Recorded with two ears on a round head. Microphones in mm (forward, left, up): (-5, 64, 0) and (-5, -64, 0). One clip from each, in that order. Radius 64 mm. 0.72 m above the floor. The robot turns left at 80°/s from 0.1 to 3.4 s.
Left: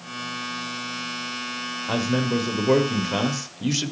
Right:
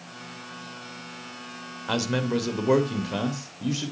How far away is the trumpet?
No trumpet in this recording.